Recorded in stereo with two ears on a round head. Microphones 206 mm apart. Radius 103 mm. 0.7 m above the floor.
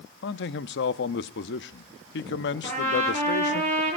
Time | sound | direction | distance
0.2 | a man speaking | 50° left (ahead or behind) | 0.7 m
2.6 | a trumpet | 30° right (ahead or behind) | 8 m